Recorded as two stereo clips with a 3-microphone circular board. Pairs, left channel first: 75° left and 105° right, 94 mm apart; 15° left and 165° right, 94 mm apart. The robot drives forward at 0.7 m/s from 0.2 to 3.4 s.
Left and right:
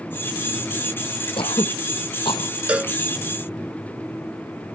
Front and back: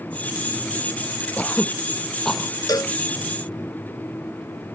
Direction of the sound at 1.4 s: 90° left.